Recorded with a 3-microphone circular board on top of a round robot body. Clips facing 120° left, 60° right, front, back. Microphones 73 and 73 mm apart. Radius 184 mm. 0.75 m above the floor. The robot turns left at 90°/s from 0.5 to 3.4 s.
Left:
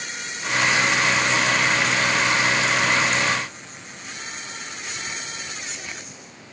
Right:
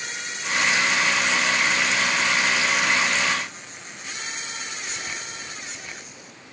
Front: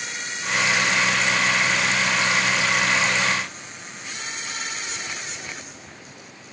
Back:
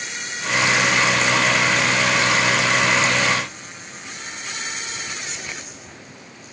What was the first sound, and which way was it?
Only background noise.